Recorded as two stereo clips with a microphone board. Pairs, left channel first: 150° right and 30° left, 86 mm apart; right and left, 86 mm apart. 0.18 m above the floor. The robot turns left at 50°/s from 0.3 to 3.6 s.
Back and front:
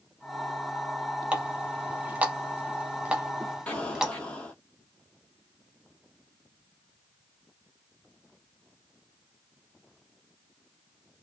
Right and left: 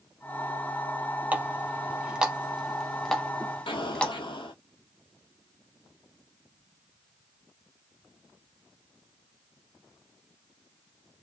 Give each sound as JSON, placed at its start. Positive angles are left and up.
{"t": 1.3, "sound": "a running tap", "azimuth_deg": 75, "distance_m": 0.7}
{"t": 3.7, "sound": "an explosion", "azimuth_deg": -75, "distance_m": 1.1}